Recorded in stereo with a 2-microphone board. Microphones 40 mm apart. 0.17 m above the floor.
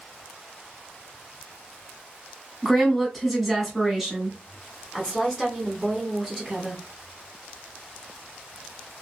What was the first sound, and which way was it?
A woman speaking, centre (ahead or behind).